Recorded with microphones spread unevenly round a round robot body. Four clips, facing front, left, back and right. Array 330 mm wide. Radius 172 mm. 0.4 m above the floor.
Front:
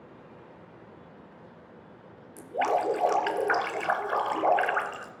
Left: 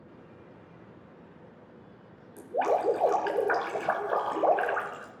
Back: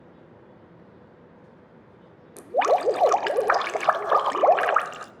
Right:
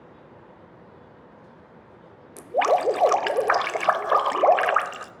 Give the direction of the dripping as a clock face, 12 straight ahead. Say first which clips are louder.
Right 6 dB, back 5 dB; 4 o'clock.